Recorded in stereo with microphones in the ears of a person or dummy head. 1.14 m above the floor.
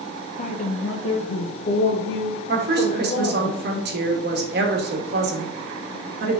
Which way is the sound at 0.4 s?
35° left (ahead or behind).